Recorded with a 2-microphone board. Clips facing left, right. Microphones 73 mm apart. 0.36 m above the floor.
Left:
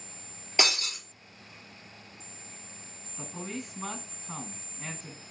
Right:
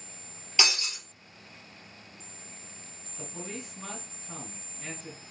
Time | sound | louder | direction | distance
0.6 | breaking glass | left 1 dB | 35° left (ahead or behind) | 3.5 m
3.2 | a man speaking | left 2 dB | 30° left (ahead or behind) | 2.5 m